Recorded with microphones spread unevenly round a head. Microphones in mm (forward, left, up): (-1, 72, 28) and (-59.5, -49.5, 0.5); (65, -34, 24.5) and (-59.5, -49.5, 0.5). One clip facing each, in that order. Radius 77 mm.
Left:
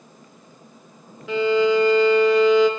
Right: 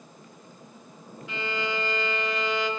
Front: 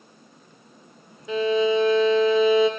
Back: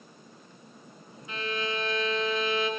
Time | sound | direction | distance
1.3 | a violin | 35° left | 0.8 m